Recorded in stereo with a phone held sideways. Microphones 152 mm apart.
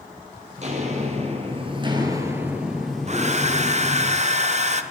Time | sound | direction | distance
0.6 | footsteps | 50° right (ahead or behind) | 2.5 m
3.1 | a hair dryer | 45° right (ahead or behind) | 0.6 m